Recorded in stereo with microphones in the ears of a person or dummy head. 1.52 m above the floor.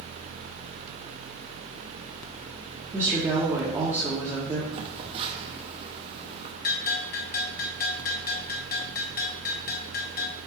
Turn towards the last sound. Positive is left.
turn(degrees=50)  # may be behind; listen again after turning